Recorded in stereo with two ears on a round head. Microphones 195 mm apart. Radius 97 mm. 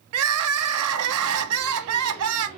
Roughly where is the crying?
Right.